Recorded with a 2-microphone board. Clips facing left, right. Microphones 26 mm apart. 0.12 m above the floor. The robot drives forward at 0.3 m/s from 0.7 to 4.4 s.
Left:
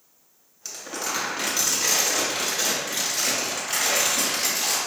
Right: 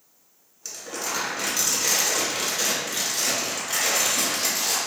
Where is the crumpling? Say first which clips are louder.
Left 1 dB; 10° left (ahead or behind), 1.7 m.